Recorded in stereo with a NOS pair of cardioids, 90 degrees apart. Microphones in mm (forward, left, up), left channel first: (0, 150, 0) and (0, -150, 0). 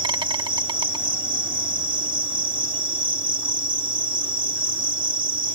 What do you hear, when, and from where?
0.0 s an insect: 15° right